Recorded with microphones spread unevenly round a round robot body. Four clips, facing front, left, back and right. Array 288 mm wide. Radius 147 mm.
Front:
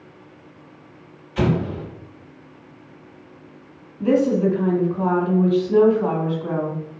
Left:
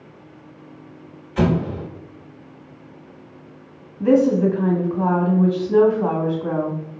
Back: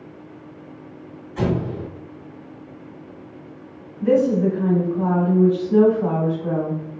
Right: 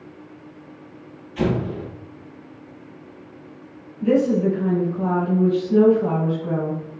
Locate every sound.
1.4 s an explosion: 60° left, 1.2 m
4.0 s a woman speaking: 65° left, 1.7 m